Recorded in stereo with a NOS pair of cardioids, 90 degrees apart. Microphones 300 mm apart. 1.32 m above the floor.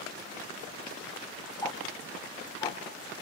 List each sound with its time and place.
1.6 s ticking: 10° left, 2.5 m